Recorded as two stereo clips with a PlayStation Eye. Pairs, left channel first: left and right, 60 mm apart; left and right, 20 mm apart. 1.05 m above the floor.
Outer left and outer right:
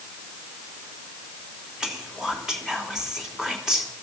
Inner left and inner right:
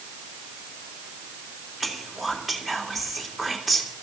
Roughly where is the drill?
I don't hear a drill.